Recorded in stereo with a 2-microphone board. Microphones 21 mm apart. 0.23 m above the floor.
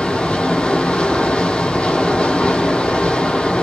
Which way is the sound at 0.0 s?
60° left (ahead or behind).